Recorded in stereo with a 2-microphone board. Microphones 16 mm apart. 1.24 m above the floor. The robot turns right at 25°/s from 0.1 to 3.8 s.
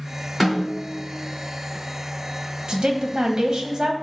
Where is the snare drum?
5° left (ahead or behind), 3 m; by 0.9 s 5° right (ahead or behind), 3 m.